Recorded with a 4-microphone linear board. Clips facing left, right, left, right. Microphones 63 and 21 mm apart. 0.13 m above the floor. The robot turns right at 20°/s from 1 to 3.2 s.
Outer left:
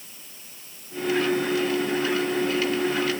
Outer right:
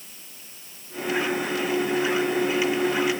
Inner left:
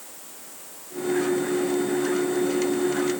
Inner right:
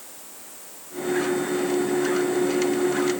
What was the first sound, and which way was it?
Only background noise.